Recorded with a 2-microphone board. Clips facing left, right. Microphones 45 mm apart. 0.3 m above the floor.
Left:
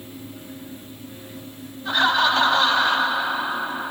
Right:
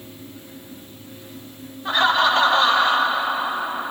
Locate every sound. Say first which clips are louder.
1.9 s laughter: right 1 dB; 35° right (ahead or behind), 1.0 m